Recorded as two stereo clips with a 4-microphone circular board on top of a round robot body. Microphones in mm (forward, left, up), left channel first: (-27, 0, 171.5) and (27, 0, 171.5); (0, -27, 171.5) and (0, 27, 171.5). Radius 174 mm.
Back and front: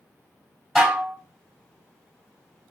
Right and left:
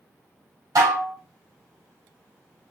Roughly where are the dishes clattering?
Left.